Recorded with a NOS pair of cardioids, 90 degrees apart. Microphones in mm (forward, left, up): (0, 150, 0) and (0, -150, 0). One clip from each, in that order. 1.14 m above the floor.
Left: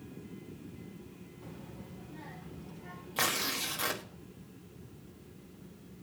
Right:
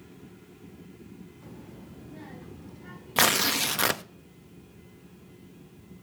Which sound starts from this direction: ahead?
A child speaking, at 1.4 s.